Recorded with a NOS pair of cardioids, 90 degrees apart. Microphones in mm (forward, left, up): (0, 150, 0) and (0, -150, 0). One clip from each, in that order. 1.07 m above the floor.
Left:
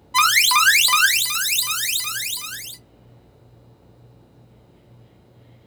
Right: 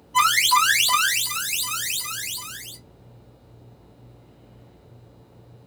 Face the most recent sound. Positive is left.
turn(degrees=65)